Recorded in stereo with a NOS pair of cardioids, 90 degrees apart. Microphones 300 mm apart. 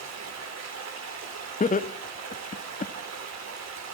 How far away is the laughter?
About 1.5 m.